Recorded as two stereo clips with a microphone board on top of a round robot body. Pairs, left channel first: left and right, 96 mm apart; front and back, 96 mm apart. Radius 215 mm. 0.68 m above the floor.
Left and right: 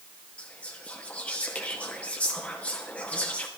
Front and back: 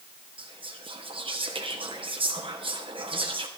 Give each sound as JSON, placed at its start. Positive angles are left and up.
{"t": 0.4, "sound": "whispering", "azimuth_deg": 165, "distance_m": 1.2}